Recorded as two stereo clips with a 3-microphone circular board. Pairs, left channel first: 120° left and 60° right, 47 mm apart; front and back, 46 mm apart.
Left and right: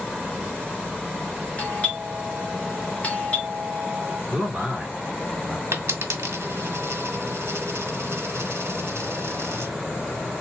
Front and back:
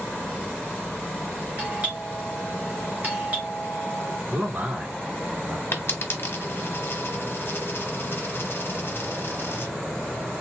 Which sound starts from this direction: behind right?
A man speaking, at 4.3 s.